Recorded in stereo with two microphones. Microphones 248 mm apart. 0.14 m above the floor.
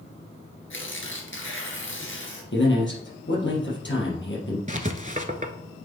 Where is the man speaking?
50° left (ahead or behind), 3.5 m.